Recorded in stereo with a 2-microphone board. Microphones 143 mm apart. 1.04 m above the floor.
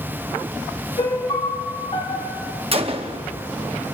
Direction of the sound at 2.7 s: 40° right (ahead or behind).